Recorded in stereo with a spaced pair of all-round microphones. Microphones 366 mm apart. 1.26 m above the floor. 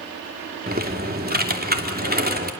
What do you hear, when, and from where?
0.7 s typing on a keyboard: 25° right (ahead or behind), 3 m